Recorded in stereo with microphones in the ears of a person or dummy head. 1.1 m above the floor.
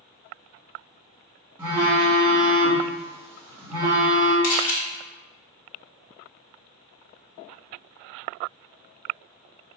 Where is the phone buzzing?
5° right (ahead or behind), 0.8 m.